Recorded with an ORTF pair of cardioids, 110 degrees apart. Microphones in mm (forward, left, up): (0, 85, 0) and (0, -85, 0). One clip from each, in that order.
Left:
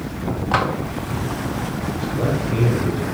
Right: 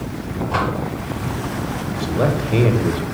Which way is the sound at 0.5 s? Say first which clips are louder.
Left 2 dB; 55° left.